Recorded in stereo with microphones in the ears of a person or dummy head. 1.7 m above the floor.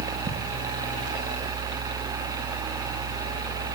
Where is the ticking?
40° right (ahead or behind), 3 m.